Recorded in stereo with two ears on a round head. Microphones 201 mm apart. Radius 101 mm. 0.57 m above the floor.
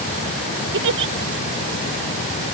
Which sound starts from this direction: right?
A giggle, at 0.7 s.